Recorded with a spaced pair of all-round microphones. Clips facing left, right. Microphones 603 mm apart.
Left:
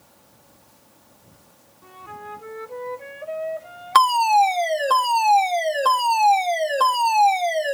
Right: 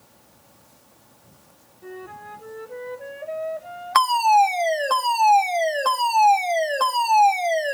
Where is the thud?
No thud in this recording.